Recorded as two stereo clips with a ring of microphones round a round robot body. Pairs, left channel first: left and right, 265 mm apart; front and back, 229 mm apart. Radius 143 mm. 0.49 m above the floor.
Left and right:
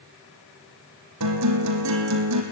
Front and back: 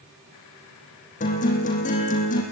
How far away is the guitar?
About 4.5 m.